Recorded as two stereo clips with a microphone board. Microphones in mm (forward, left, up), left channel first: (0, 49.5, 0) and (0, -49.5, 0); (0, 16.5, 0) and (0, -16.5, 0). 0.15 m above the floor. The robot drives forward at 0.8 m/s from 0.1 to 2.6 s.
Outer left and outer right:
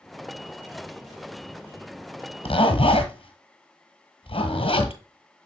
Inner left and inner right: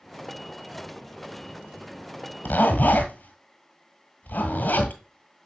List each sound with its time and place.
2.5 s a zipper: 70° left (ahead or behind), 1.3 m; by 5.0 s 65° left (ahead or behind), 1.3 m